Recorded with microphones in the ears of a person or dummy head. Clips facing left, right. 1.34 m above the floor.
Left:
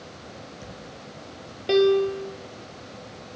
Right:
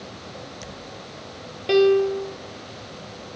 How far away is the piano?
About 1.1 m.